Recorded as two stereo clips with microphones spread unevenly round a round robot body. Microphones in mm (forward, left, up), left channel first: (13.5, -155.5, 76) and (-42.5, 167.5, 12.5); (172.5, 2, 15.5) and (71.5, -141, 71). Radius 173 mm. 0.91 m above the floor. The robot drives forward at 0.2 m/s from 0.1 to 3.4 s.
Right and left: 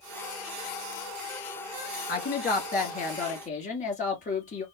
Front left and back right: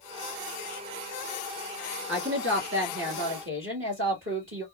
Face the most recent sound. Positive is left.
turn(degrees=-155)